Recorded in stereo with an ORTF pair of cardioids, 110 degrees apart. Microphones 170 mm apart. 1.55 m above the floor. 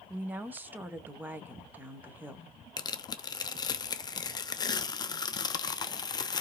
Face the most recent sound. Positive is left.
turn(degrees=25)